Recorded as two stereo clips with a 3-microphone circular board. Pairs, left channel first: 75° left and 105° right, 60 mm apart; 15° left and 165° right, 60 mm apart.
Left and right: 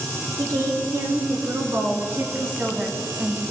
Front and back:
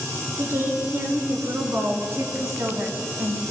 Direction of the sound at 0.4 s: 120° right.